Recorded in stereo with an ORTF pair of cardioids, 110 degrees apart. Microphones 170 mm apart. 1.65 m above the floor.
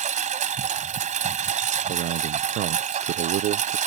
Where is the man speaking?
70° right.